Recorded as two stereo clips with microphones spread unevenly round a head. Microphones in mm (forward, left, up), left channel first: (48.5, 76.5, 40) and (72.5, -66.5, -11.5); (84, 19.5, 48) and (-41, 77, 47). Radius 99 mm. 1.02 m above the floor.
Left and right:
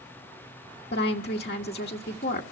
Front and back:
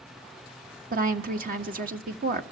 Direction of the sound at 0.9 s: 145° left.